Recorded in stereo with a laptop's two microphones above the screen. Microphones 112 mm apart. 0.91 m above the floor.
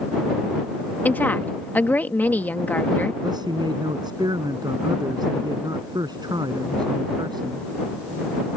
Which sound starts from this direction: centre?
A woman speaking, at 1.1 s.